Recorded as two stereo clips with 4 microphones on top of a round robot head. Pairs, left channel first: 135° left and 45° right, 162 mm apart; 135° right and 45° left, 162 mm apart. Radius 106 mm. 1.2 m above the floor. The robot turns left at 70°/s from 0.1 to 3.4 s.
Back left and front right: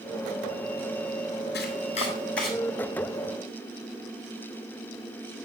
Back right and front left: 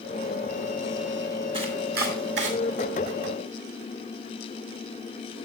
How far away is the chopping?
About 4.5 m.